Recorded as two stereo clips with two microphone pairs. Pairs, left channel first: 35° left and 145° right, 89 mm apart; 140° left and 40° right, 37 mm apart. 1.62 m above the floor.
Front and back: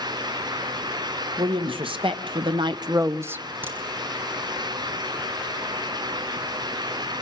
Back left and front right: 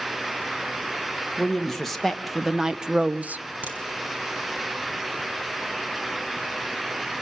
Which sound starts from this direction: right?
A crack, at 3.6 s.